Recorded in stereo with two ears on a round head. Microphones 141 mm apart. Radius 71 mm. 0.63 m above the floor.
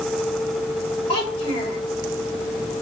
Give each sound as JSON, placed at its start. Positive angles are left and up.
{"t": 1.1, "sound": "a child speaking", "side_deg": 40, "distance_m": 1.1}